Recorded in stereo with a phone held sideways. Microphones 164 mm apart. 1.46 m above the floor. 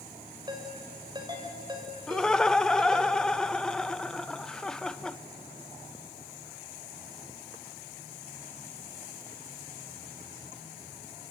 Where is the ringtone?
25° right (ahead or behind), 4.5 m.